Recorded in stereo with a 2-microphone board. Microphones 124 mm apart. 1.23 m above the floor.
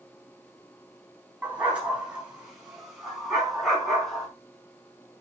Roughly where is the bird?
I don't hear a bird.